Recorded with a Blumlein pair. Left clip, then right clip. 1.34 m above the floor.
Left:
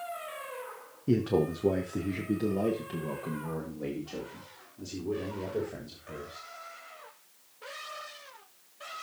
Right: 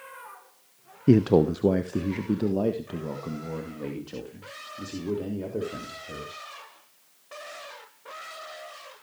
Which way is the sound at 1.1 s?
30° right.